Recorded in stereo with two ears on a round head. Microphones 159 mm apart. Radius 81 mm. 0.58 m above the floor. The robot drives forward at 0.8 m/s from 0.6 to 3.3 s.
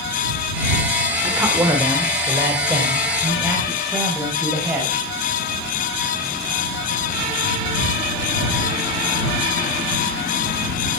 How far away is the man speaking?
About 2.0 m.